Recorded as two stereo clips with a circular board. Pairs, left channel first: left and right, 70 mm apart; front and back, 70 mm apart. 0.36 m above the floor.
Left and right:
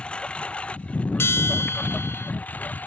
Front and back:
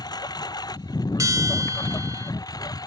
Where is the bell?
145° left.